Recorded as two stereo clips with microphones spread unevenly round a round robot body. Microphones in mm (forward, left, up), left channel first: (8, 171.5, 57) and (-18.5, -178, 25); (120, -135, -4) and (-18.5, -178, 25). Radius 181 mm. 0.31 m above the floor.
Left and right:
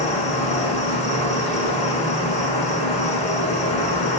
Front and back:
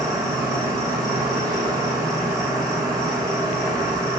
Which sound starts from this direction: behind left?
An insect, at 0.0 s.